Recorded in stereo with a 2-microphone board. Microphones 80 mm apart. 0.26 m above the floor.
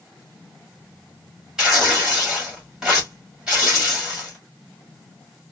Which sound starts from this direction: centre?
Tearing paper, at 1.6 s.